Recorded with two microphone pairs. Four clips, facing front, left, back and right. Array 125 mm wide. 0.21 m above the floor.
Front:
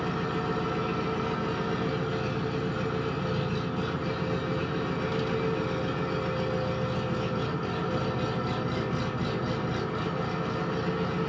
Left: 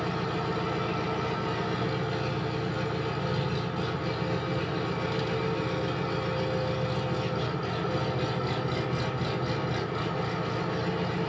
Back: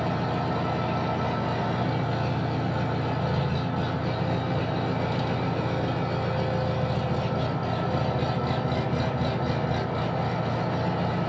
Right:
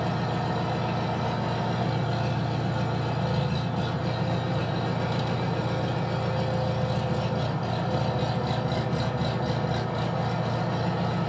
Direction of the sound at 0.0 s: 150° right.